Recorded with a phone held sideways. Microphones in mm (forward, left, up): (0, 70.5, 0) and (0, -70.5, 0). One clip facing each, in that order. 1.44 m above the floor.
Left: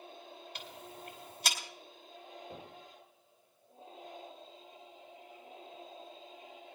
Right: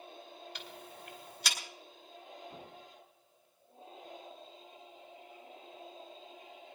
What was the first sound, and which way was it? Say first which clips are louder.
Ticking: left 1 dB; 50° left (ahead or behind).